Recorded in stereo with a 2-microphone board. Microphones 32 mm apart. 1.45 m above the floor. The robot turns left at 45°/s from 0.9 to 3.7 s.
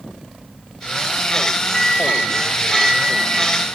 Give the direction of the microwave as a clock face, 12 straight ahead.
11 o'clock.